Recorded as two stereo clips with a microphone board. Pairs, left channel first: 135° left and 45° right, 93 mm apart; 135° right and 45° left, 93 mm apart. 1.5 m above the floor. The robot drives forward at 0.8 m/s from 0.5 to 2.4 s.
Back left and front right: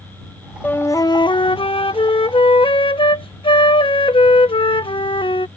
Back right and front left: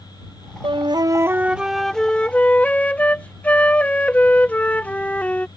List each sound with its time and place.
0.6 s a flute: 65° left; by 5.5 s 150° left